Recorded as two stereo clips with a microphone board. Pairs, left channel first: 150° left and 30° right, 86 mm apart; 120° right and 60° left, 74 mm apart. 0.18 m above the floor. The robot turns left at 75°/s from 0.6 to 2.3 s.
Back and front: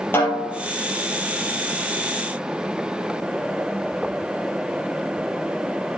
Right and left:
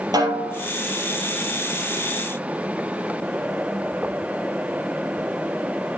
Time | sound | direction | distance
0.1 | a snare drum | 85° left | 4 m